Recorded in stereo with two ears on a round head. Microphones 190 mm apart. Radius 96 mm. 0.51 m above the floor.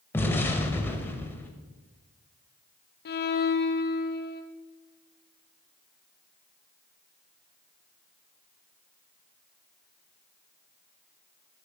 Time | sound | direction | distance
0.1 | an explosion | 10° left (ahead or behind) | 0.8 m
3.0 | a violin | 50° left (ahead or behind) | 0.8 m